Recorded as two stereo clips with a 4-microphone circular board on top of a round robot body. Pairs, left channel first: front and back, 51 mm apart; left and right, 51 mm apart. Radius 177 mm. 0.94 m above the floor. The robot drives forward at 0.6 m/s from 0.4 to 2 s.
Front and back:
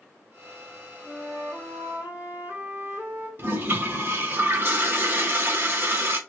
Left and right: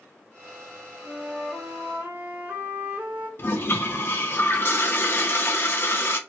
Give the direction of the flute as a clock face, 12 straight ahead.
4 o'clock.